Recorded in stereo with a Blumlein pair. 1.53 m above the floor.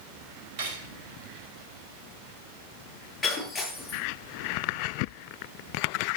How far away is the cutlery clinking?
About 5 m.